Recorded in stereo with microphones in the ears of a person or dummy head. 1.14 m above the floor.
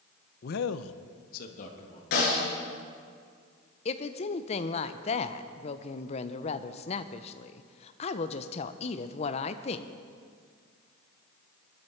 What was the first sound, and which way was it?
A man speaking, 45° left (ahead or behind).